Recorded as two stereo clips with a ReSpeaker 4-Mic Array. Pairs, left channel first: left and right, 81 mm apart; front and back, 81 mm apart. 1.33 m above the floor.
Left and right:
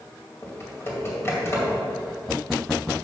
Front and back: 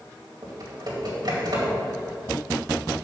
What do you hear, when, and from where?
0.4 s typing on a keyboard: 150° left, 2.5 m